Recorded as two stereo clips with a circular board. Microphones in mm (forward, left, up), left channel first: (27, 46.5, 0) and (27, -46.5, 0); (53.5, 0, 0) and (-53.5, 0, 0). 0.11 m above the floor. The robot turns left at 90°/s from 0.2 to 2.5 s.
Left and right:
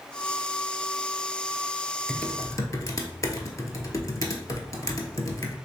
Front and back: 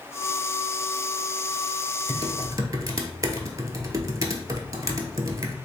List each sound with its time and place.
2.1 s typing on a keyboard: 170° left, 0.6 m; by 5.5 s 130° left, 0.6 m